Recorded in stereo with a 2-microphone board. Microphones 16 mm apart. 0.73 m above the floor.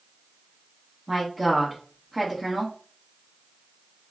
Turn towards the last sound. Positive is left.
turn(degrees=-15)  # may be behind; listen again after turning